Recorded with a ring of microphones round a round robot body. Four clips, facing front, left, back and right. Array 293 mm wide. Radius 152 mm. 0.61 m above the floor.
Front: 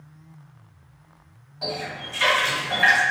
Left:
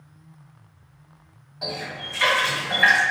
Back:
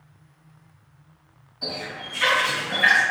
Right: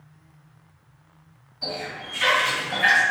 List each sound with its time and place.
1.6 s a running tap: 50° left, 2.0 m